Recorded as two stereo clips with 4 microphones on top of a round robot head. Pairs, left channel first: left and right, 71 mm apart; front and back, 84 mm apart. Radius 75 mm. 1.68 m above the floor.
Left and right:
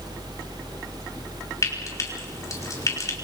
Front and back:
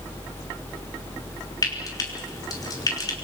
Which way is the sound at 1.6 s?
45° left.